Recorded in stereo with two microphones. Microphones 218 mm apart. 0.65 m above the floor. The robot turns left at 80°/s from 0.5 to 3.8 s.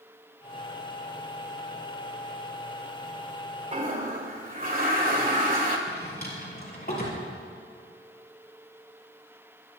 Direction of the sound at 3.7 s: 35° right (ahead or behind).